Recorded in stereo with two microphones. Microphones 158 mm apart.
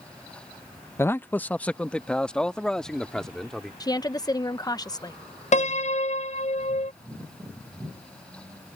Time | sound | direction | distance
1.0 | a man speaking | 15° left (ahead or behind) | ?
3.8 | a woman speaking | 25° left (ahead or behind) | ?
5.5 | a piano | 45° left (ahead or behind) | ?